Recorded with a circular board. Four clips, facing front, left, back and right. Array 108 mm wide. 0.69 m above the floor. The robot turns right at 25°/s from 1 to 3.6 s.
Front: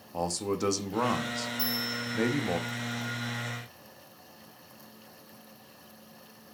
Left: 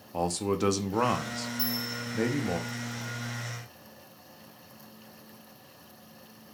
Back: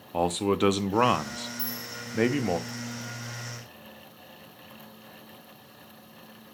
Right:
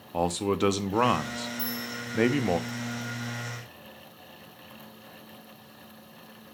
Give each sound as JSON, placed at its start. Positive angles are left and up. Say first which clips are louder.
{"t": 0.1, "sound": "a man speaking", "louder": "right 2 dB, back 6 dB", "azimuth_deg": -160, "distance_m": 0.5}
{"t": 1.6, "sound": "a bell", "louder": "even, front 5 dB", "azimuth_deg": 110, "distance_m": 3.5}